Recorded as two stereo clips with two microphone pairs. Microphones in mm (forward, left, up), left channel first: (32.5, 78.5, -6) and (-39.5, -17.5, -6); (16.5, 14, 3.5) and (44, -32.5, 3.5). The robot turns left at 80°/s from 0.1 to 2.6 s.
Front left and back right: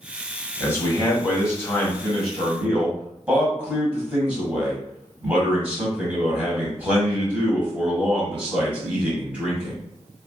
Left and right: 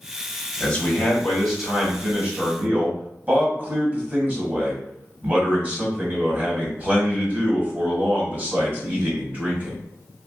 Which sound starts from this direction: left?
A man speaking, at 0.6 s.